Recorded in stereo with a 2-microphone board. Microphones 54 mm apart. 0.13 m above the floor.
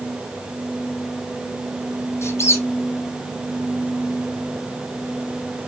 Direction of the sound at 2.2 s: 55° left (ahead or behind).